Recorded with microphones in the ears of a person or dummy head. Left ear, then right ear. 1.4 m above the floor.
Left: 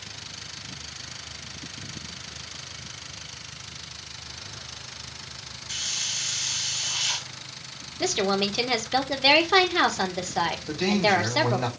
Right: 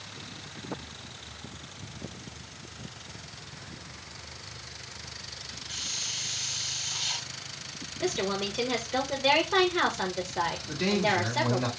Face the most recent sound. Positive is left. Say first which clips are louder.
# left 5 dB
turn(degrees=45)  # may be behind; listen again after turning